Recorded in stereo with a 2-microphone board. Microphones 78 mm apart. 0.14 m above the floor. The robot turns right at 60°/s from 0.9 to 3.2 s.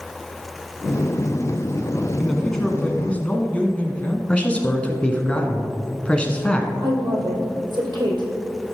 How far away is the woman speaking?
About 3.5 m.